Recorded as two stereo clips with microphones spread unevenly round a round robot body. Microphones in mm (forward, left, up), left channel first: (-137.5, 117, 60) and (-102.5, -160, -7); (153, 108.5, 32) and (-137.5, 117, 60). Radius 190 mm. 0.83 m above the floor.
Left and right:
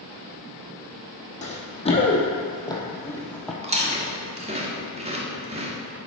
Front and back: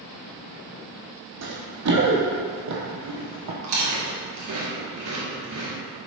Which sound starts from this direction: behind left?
Running footsteps, at 1.4 s.